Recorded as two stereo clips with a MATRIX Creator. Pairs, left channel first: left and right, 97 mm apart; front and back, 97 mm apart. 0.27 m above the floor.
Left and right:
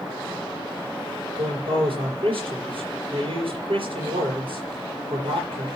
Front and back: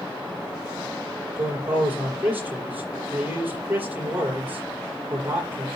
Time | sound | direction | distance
1.4 | a man speaking | 110° right | 5.5 m